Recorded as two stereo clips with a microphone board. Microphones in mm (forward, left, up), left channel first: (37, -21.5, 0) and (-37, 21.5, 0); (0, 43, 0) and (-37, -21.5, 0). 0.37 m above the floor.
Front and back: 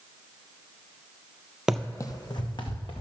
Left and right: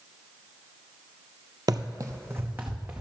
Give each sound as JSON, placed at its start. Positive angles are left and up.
{"t": 1.7, "sound": "running footsteps", "azimuth_deg": -130, "distance_m": 0.5}